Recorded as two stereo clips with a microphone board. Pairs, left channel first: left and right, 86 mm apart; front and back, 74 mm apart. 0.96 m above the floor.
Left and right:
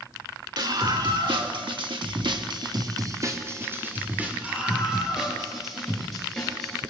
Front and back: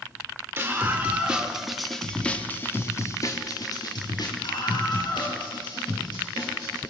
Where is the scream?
120° right, 4 m; by 6.8 s 5° left, 7 m.